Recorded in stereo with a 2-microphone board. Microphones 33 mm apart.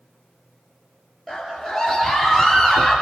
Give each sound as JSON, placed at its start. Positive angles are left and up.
{"t": 1.3, "sound": "a scream", "side_deg": -5, "distance_m": 4.0}